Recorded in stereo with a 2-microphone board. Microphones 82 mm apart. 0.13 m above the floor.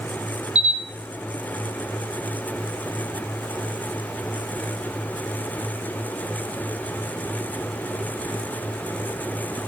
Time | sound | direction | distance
0.6 | a camera shutter | 10° right (ahead or behind) | 1.7 m